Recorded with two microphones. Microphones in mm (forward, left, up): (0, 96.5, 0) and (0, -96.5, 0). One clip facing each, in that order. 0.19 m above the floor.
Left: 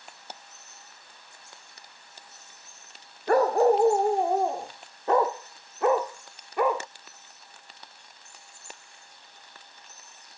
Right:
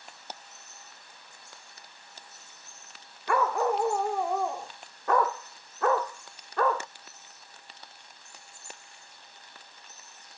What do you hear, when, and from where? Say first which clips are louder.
3.3 s a dog barking: left 7 dB; 40° left (ahead or behind); by 6.9 s 15° left (ahead or behind)